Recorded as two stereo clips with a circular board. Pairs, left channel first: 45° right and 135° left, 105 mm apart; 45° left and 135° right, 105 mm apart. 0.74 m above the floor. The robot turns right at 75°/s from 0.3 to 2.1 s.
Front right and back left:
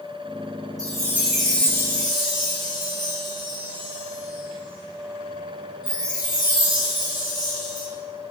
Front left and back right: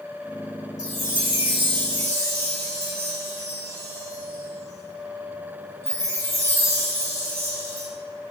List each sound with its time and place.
0.8 s a chime: straight behind, 1.5 m; by 7.9 s 80° right, 1.5 m